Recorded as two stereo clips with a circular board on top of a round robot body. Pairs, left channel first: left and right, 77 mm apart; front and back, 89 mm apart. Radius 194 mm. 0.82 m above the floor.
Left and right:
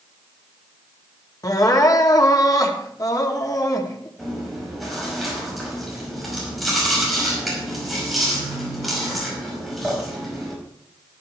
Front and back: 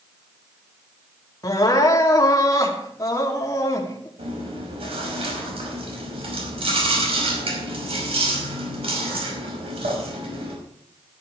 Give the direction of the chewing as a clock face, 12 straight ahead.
6 o'clock.